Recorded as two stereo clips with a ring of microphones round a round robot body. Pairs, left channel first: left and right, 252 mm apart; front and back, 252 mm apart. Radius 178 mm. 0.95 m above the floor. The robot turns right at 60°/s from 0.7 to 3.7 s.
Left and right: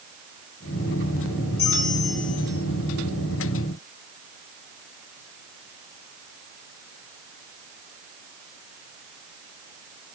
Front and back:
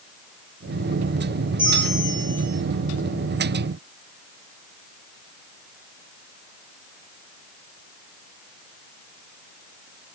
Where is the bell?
95° left, 7 m; by 2.6 s 155° left, 7 m.